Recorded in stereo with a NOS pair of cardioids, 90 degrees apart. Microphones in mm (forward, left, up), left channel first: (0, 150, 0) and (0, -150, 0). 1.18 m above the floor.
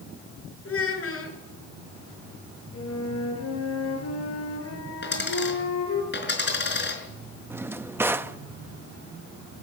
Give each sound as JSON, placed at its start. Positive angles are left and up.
{"t": 0.7, "sound": "a child speaking", "azimuth_deg": 45, "distance_m": 9.0}
{"t": 2.7, "sound": "a flute", "azimuth_deg": 50, "distance_m": 7.5}
{"t": 5.0, "sound": "a dropped coin", "azimuth_deg": 35, "distance_m": 5.0}
{"t": 7.5, "sound": "a drawer", "azimuth_deg": -5, "distance_m": 0.8}